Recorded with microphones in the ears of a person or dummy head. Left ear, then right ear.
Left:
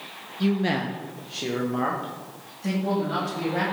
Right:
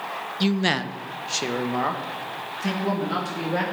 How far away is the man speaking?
About 0.8 m.